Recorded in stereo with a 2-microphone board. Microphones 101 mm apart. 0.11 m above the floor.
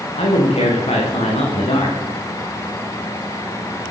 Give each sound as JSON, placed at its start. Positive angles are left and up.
{"t": 0.2, "sound": "a man speaking", "side_deg": 80, "distance_m": 9.5}